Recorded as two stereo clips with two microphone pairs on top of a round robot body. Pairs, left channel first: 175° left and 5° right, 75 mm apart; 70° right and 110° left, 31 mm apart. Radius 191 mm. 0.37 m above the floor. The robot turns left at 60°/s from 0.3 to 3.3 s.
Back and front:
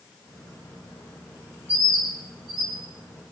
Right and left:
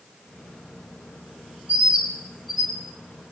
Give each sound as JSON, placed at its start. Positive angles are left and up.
{"t": 1.7, "sound": "a bird", "azimuth_deg": 70, "distance_m": 4.5}